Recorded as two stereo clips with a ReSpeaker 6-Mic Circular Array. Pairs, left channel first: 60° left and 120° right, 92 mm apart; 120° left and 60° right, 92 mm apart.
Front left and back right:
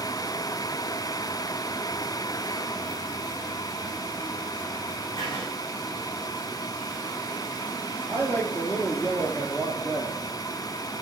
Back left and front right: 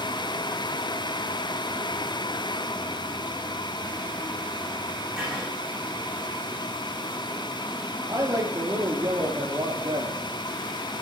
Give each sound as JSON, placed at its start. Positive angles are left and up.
{"t": 5.2, "sound": "writing", "azimuth_deg": 25, "distance_m": 9.5}
{"t": 8.1, "sound": "a woman speaking", "azimuth_deg": -5, "distance_m": 3.5}